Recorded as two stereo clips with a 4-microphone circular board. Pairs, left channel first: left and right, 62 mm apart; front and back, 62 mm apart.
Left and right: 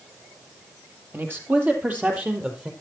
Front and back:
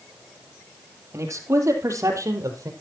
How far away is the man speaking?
About 3.5 m.